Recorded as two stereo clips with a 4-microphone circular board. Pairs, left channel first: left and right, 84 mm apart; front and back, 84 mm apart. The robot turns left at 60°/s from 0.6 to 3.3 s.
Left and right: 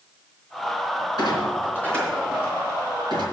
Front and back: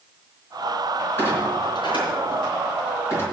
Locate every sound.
1.2 s a clunk: 60° left, 4 m; by 3.2 s 65° right, 4 m